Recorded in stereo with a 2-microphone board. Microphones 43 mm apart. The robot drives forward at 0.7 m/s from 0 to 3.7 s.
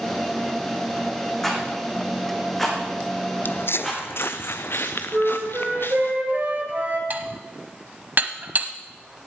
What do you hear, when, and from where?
1.4 s a rattle: 5° left (ahead or behind), 6.5 m
3.5 s footsteps: 55° left (ahead or behind), 0.5 m; by 6.1 s 60° left (ahead or behind), 1.9 m
5.1 s a flute: 40° right (ahead or behind), 3.5 m
7.1 s dishes clattering: 45° right (ahead or behind), 1.1 m